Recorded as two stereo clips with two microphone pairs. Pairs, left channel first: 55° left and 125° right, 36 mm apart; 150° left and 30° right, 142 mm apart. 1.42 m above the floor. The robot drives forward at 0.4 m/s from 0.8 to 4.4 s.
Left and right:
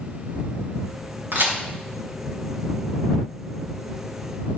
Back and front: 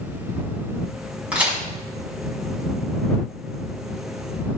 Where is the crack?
110° right, 5.5 m.